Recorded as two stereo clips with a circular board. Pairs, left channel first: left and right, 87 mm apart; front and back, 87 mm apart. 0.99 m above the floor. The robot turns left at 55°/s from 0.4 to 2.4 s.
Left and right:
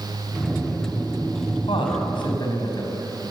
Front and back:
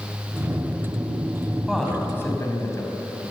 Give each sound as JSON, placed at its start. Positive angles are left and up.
{"t": 1.7, "sound": "a man speaking", "azimuth_deg": 95, "distance_m": 5.5}